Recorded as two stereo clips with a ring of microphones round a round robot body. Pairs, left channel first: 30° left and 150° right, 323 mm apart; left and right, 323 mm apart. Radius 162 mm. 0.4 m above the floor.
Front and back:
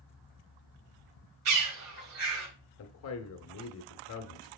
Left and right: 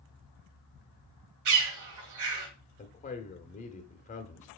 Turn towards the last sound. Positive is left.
turn(degrees=30)